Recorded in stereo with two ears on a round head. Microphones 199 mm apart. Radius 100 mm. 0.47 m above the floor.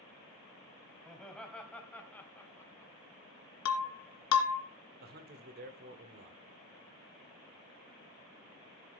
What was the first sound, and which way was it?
Laughter, centre (ahead or behind).